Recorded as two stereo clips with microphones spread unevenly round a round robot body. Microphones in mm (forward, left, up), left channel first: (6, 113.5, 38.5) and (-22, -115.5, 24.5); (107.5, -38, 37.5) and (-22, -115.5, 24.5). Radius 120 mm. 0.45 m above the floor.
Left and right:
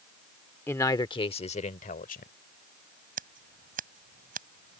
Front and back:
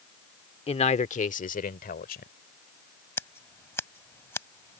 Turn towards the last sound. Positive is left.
turn(degrees=-45)